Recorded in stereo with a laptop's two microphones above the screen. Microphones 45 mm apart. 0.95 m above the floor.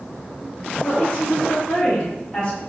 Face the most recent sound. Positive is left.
turn(degrees=20)  # may be behind; listen again after turning